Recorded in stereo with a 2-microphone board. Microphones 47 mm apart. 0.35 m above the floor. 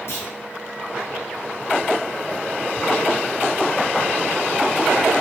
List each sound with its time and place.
0.1 s a clunk: 65° left (ahead or behind), 3.5 m